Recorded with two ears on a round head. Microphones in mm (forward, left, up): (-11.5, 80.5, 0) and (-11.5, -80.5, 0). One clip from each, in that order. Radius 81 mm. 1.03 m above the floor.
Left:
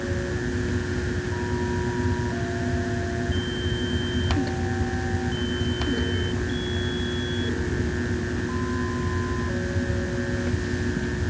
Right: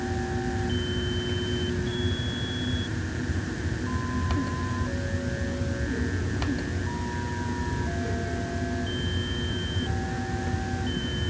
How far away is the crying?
No crying in this recording.